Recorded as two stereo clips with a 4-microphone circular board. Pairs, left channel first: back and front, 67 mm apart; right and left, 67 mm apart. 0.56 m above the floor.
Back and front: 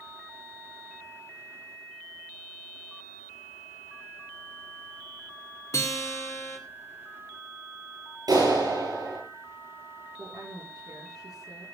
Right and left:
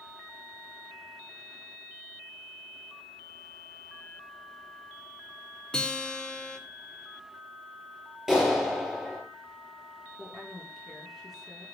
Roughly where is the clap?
Ahead.